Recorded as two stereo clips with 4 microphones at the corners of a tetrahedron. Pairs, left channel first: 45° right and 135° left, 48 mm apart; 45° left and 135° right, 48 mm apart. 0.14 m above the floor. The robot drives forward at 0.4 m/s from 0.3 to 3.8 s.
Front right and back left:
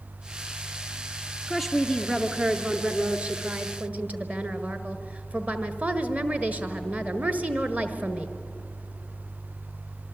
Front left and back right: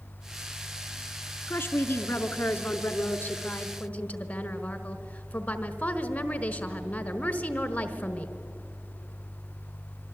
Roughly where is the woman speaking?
Ahead left.